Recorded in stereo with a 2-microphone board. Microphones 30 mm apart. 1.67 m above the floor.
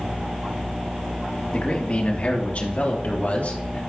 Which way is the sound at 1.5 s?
40° left (ahead or behind).